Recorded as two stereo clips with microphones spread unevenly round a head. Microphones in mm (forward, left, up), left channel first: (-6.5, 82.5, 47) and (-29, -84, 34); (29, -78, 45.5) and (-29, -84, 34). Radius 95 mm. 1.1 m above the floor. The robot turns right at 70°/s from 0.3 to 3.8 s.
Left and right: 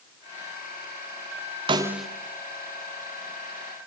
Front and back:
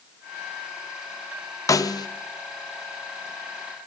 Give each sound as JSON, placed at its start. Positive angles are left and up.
{"t": 1.7, "sound": "a snare drum", "azimuth_deg": -30, "distance_m": 0.8}